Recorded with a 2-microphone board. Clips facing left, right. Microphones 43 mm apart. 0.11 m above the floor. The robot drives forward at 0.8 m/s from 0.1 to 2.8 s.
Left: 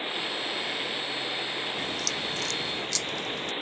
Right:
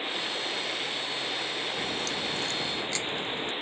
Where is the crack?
30° right (ahead or behind); by 3.5 s 25° right (ahead or behind).